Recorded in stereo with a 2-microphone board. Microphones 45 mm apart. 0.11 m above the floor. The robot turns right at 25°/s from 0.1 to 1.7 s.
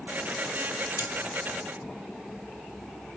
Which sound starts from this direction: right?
Cutlery clinking, at 1.0 s.